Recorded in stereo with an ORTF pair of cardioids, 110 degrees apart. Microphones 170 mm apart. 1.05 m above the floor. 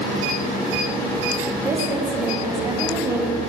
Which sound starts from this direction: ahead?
A woman speaking, at 1.6 s.